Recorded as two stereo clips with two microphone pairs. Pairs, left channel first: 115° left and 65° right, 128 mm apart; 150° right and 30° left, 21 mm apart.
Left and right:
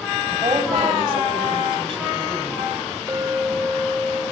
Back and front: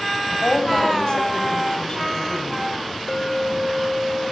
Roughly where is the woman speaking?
Right.